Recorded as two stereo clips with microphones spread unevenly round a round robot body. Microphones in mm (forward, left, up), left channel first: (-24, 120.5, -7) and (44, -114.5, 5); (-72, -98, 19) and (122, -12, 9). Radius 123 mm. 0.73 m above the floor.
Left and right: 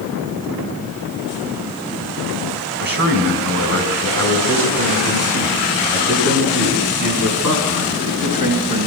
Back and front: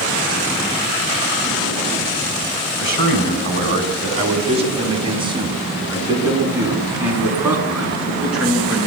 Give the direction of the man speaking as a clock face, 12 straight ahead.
1 o'clock.